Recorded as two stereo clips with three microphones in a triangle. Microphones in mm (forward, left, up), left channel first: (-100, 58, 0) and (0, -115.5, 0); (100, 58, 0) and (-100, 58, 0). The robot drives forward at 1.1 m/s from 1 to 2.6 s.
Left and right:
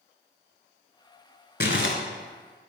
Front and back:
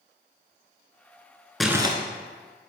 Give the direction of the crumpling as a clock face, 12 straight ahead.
9 o'clock.